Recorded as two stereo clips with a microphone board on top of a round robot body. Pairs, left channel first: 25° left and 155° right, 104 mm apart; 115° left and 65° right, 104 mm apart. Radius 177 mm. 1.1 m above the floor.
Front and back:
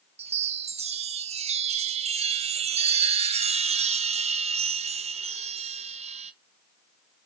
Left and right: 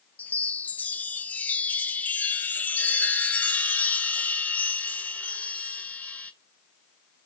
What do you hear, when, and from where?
0.2 s a chime: 170° right, 0.6 m